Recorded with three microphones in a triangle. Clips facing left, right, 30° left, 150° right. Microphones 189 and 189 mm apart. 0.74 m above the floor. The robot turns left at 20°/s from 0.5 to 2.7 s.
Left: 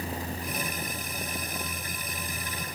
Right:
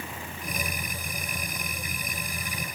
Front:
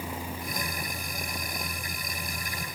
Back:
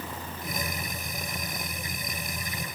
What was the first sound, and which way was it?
Only background noise.